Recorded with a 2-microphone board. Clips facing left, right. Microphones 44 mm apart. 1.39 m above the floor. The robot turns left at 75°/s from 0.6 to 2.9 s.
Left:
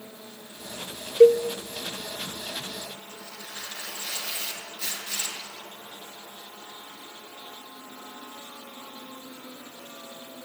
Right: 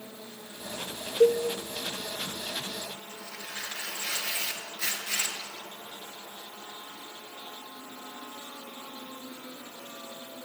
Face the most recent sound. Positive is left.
turn(degrees=-75)  # may be behind; listen again after turning